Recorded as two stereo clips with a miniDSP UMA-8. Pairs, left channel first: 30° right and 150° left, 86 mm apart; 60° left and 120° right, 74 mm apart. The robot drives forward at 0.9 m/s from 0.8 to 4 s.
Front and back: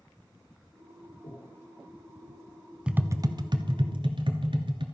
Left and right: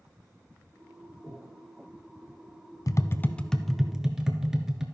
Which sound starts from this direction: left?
Tapping, at 2.9 s.